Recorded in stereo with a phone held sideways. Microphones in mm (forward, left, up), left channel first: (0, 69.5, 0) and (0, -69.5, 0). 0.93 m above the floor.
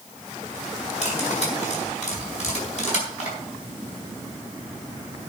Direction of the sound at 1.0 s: 55° left (ahead or behind).